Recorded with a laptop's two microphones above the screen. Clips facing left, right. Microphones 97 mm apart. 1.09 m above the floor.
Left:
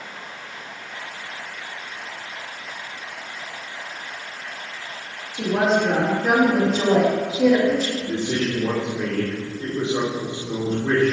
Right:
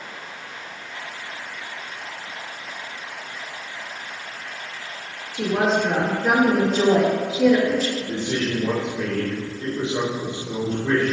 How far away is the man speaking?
About 2.5 m.